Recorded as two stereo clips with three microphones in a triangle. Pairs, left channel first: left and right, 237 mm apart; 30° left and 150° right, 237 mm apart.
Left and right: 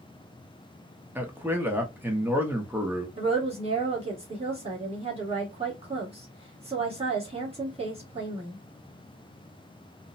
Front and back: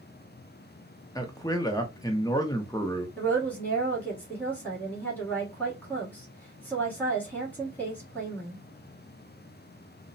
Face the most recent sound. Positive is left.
turn(degrees=-50)